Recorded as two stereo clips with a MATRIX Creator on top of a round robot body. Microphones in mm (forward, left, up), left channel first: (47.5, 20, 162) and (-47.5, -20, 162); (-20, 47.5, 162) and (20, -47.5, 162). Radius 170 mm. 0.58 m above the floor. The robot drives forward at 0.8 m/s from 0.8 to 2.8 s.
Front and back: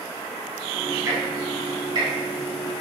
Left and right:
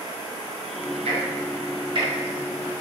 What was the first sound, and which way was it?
Ticking, 95° right.